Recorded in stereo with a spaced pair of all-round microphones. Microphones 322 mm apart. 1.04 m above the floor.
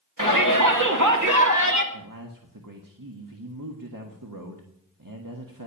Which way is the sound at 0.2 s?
75° right (ahead or behind).